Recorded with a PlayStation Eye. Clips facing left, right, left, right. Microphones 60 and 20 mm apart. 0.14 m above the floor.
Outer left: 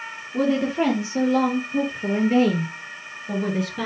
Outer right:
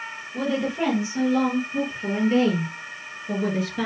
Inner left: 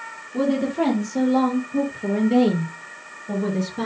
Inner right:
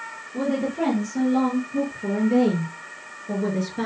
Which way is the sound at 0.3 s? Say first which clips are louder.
Outer left 4 dB, inner left 3 dB; 35° left (ahead or behind).